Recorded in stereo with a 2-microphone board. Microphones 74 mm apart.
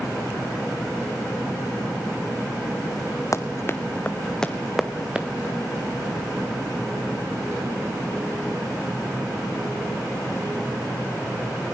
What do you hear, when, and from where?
3.3 s running footsteps: 45° left (ahead or behind), 1.2 m; by 5.3 s 15° right (ahead or behind), 1.4 m